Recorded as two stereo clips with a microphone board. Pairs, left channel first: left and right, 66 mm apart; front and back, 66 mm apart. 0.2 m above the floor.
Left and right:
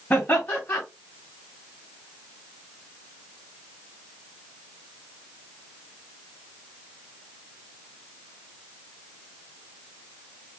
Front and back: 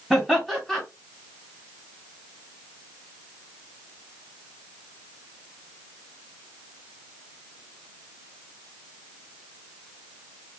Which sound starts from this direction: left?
Laughter, at 0.1 s.